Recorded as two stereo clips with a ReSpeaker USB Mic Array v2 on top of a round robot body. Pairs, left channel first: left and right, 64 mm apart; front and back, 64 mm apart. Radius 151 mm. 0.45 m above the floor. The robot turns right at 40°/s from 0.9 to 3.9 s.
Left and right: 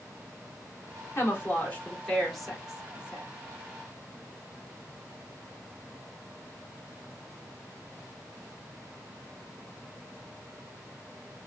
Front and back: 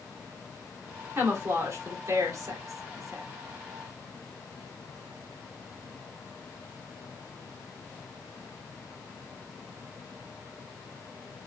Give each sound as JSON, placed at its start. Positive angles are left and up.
{"t": 1.1, "sound": "a woman speaking", "azimuth_deg": 130, "distance_m": 2.0}